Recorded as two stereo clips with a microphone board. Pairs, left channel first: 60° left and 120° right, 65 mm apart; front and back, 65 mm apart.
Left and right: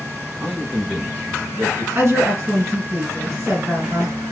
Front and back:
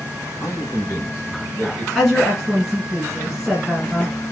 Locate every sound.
0.4 s a man speaking: 40° right, 2.5 m; by 1.9 s 65° right, 2.5 m
1.9 s a woman speaking: 90° right, 1.5 m